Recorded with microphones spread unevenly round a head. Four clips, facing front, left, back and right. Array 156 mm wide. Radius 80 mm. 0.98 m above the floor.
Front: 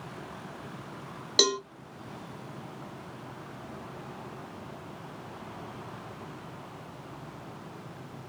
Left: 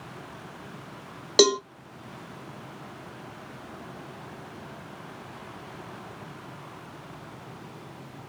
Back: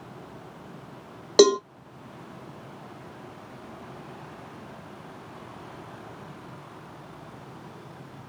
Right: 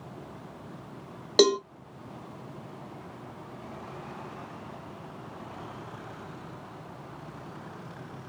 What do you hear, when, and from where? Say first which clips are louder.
1.4 s a cowbell: left 1 dB, back 12 dB; 175° right, 0.6 m